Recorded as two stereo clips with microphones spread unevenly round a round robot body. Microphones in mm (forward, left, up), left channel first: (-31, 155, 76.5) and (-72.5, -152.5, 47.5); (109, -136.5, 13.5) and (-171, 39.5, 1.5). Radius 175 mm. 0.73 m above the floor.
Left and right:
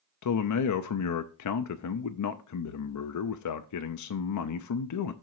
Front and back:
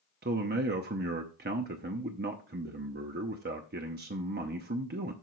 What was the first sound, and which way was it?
A man speaking, 95° left.